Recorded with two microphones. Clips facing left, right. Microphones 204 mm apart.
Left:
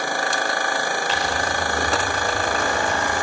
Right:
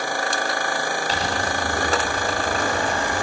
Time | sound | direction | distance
1.1 | crumpling | 35° right (ahead or behind) | 6 m